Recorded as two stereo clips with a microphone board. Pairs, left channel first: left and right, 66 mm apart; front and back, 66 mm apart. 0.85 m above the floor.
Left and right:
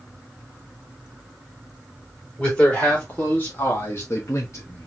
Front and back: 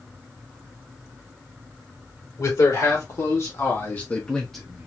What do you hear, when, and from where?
2.4 s a man speaking: 15° left, 2.5 m; by 4.9 s 110° left, 0.9 m